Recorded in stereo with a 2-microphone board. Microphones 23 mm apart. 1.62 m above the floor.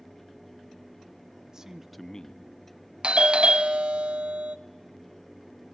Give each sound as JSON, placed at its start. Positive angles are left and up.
{"t": 1.5, "sound": "a man speaking", "side_deg": -30, "distance_m": 1.0}
{"t": 3.0, "sound": "a doorbell", "side_deg": -60, "distance_m": 0.6}